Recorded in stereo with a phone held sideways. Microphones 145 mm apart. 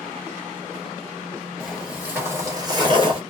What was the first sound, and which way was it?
Footsteps, centre (ahead or behind).